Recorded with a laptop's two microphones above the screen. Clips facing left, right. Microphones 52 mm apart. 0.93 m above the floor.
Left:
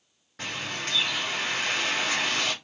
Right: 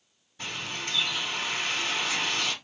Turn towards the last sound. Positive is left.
turn(degrees=75)  # may be behind; listen again after turning